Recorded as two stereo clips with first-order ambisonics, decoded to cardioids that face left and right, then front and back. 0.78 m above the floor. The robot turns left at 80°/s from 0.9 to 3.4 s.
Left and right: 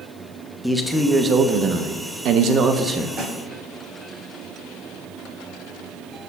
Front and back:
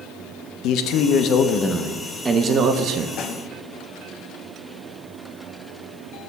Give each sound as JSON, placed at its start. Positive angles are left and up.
{"t": 0.6, "sound": "a man speaking", "azimuth_deg": 0, "distance_m": 0.7}
{"t": 3.2, "sound": "a snare drum", "azimuth_deg": -35, "distance_m": 0.9}